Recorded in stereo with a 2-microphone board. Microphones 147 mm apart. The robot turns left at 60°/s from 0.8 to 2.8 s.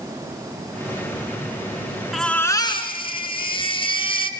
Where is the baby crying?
Straight behind, 3 m; by 4.3 s 140° left, 3 m.